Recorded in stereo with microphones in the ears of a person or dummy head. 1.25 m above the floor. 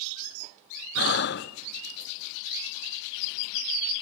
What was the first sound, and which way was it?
Breathing, 50° left (ahead or behind).